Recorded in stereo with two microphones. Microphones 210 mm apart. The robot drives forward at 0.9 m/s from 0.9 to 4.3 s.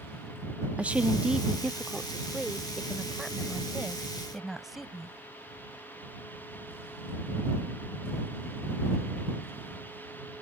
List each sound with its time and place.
0.8 s a woman speaking: 5° right (ahead or behind); by 5.2 s centre (ahead or behind)